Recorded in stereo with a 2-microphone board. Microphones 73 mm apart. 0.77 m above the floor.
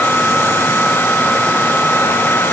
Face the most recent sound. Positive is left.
No sound to turn to.